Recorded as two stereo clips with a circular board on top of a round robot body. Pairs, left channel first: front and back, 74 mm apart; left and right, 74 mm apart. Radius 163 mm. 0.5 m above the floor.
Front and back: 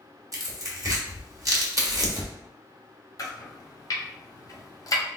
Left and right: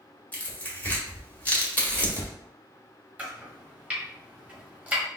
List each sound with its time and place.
0.3 s tearing paper: 155° left, 1.7 m
3.2 s chopping: 25° right, 1.6 m